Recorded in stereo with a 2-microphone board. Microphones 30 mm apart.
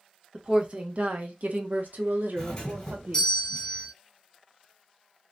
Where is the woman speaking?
35° right (ahead or behind), 1.1 m; by 3.4 s 60° right (ahead or behind), 1.3 m.